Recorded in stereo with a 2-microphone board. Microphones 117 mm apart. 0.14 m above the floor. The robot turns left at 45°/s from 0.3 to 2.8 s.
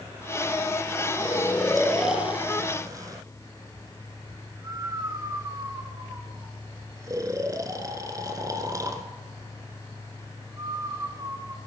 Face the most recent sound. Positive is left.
turn(degrees=-30)  # may be behind; listen again after turning